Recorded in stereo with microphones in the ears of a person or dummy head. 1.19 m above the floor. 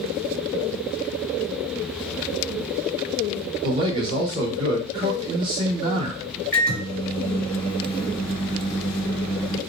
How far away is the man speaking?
About 1.3 m.